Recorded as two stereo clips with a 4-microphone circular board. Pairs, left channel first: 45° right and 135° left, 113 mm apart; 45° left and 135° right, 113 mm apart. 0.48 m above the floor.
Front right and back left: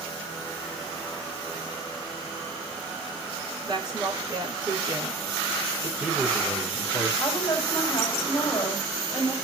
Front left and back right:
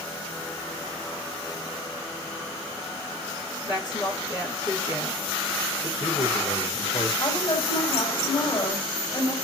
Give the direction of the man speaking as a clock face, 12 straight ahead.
10 o'clock.